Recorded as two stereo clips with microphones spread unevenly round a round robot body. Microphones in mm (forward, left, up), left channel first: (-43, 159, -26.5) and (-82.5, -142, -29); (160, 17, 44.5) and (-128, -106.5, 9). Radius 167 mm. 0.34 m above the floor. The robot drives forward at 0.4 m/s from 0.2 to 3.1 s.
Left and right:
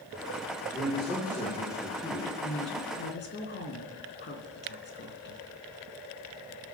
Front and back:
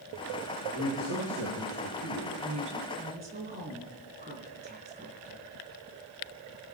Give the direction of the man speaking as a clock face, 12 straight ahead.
7 o'clock.